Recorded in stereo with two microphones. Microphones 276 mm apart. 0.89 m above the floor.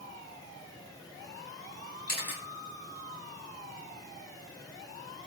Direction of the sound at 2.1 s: 70° left (ahead or behind).